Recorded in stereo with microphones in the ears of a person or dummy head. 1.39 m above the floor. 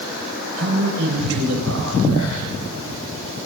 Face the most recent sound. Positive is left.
turn(degrees=-75)  # may be behind; listen again after turning